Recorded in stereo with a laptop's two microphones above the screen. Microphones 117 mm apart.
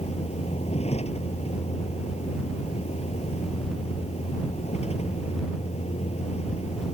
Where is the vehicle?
65° left (ahead or behind).